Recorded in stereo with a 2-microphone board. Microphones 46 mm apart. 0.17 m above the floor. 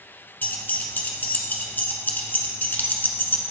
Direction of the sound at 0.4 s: 45° left (ahead or behind).